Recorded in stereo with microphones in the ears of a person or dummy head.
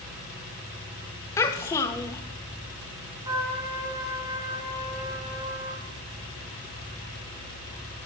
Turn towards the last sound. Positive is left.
turn(degrees=-25)  # may be behind; listen again after turning